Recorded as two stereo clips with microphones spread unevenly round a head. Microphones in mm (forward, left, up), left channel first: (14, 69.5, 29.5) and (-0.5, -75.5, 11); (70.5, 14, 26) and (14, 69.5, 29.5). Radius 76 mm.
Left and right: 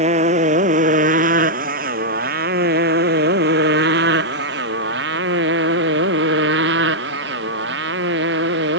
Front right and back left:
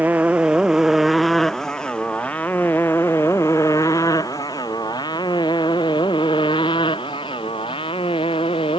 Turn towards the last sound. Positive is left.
turn(degrees=-90)